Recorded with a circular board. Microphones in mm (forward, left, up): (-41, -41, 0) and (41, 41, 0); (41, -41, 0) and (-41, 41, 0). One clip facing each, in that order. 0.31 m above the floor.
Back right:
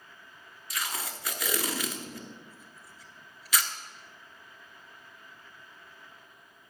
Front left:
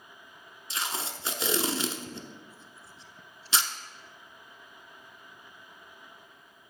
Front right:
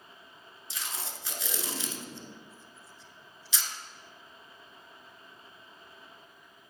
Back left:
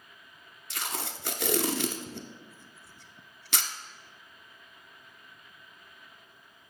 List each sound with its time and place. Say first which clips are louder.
0.7 s tape being pulled: front left 1 dB, back left 5 dB; 110° left, 0.7 m